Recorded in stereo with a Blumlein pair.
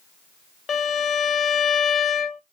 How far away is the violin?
About 0.5 m.